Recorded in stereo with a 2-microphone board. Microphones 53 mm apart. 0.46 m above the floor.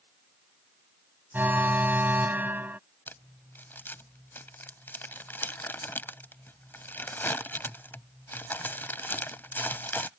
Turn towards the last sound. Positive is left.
turn(degrees=45)  # may be behind; listen again after turning